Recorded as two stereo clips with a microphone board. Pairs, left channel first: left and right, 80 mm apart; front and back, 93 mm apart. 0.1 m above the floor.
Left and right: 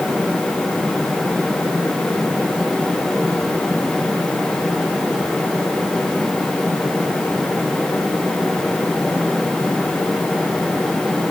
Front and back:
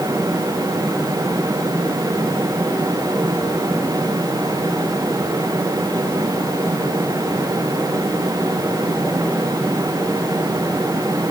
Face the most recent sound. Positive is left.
No sound to turn to.